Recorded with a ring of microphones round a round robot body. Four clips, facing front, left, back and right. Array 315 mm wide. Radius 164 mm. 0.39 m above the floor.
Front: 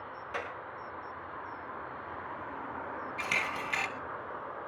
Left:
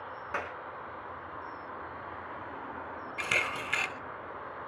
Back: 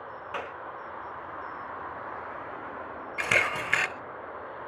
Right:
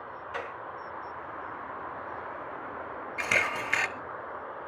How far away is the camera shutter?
About 1.1 m.